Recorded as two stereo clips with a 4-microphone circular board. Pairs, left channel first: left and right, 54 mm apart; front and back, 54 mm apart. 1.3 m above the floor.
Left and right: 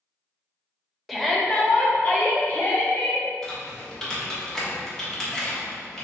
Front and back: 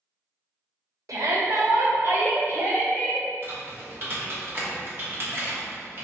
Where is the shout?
Straight behind, 0.8 m; by 3.3 s 130° left, 1.5 m.